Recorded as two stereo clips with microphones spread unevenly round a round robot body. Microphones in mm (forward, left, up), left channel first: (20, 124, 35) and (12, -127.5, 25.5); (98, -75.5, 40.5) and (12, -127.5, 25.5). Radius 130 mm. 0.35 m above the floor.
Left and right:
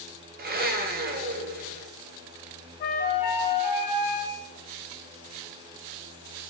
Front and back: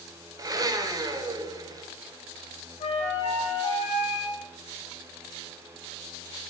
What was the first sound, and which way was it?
A blender, 125° right.